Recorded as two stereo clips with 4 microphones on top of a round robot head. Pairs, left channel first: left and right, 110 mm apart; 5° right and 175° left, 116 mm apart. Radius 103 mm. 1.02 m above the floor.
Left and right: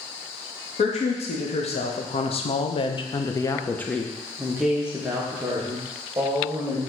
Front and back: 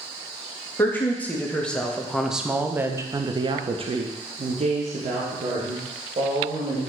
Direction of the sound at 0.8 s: 70° left.